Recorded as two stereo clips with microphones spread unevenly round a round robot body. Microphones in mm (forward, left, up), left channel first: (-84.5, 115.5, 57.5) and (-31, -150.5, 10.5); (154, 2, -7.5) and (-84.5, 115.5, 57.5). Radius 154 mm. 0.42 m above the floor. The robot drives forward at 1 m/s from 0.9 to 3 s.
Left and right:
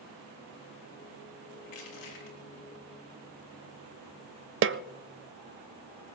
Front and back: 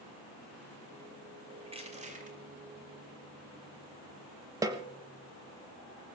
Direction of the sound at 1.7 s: 85° left.